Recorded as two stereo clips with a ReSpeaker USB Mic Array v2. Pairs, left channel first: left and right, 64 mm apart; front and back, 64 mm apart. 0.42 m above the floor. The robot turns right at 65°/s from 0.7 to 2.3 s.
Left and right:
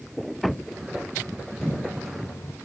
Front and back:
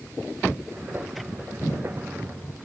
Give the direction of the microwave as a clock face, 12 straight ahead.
11 o'clock.